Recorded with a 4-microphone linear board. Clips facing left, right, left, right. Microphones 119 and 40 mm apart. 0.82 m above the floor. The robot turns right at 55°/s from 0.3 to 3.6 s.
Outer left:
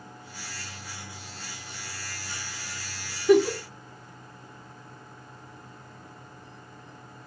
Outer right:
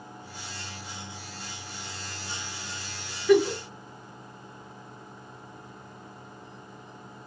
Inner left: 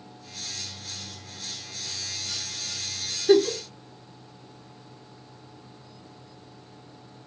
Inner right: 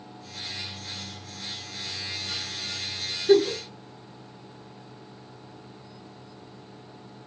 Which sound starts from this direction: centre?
A giggle, at 3.3 s.